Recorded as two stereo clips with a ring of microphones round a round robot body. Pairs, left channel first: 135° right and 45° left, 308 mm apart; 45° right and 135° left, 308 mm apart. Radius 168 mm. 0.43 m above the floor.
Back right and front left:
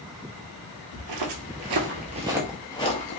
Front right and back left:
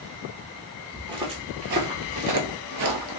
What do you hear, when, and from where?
1.0 s footsteps: 55° left, 0.8 m; by 3.2 s 165° left, 0.7 m